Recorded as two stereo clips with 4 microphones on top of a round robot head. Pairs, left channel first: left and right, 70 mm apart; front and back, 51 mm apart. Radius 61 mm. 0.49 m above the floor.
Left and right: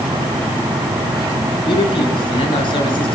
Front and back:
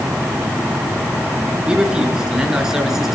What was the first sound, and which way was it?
A man speaking, 105° left.